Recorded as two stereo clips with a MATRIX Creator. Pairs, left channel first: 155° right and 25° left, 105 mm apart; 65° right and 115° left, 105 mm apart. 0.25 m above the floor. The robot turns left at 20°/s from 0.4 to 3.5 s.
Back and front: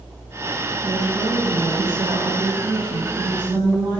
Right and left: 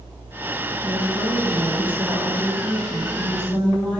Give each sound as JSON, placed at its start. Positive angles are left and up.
{"t": 0.8, "sound": "a woman speaking", "azimuth_deg": 60, "distance_m": 1.8}